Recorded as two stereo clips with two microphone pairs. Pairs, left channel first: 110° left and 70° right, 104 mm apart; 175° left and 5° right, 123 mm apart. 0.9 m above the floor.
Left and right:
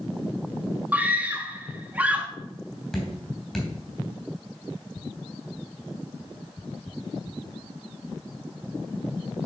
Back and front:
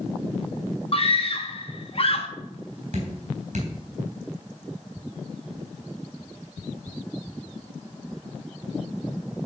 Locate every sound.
0.9 s a scream: 145° right, 1.3 m
2.9 s dripping: 25° left, 3 m